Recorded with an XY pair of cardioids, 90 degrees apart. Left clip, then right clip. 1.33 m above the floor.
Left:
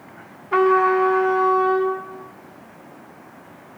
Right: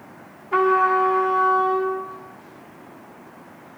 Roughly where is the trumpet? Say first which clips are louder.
Left 1 dB; ahead left.